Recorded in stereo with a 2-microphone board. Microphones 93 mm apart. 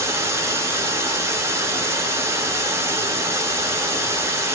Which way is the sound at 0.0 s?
30° right (ahead or behind).